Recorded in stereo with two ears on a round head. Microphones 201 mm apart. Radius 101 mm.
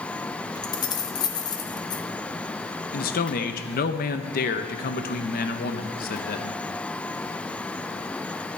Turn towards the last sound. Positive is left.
turn(degrees=40)  # may be behind; listen again after turning